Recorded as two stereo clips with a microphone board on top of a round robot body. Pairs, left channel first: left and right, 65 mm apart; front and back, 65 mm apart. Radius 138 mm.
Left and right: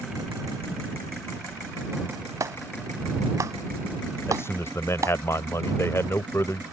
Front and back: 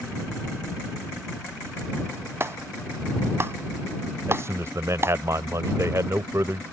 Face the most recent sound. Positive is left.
turn(degrees=135)